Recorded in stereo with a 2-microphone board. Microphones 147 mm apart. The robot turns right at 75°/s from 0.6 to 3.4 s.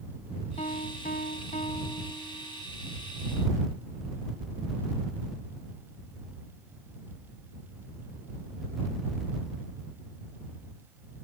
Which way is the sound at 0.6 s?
50° left.